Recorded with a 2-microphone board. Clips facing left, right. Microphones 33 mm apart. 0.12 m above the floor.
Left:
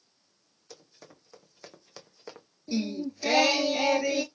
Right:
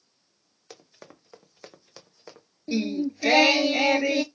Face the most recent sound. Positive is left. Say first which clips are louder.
# right 4 dB
turn(degrees=-35)  # may be behind; listen again after turning